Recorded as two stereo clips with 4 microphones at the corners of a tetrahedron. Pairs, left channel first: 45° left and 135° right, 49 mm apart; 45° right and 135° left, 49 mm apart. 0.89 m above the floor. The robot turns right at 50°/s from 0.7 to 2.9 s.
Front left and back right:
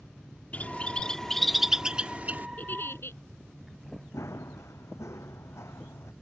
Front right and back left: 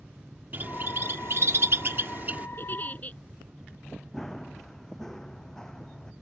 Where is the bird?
95° left; by 2.5 s 175° right.